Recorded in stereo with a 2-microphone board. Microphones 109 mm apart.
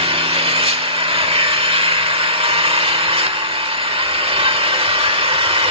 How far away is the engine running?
About 1.2 m.